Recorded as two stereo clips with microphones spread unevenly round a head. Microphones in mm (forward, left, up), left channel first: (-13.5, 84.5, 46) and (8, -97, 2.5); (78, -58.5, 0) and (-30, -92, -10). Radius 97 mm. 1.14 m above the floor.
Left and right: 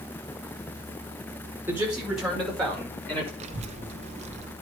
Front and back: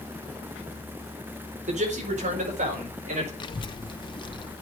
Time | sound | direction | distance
1.7 | a man speaking | 165° right | 4.5 m
3.4 | a child speaking | 25° right | 1.0 m